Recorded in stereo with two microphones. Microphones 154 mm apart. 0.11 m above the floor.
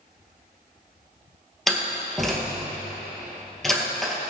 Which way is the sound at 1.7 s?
Centre (ahead or behind).